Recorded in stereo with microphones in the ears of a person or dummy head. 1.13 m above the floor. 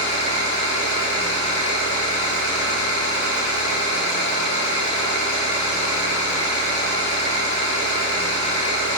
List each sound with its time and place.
0.0 s an engine running: 35° left (ahead or behind), 1.2 m